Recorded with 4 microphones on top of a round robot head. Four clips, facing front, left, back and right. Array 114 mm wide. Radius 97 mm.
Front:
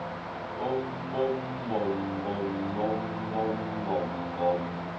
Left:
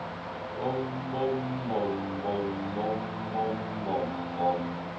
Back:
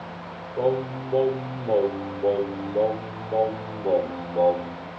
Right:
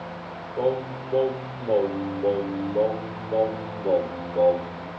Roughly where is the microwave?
No microwave in this recording.